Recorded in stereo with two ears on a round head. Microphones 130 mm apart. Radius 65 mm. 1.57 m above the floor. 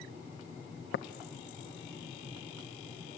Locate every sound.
0.9 s tapping: 80° left, 0.6 m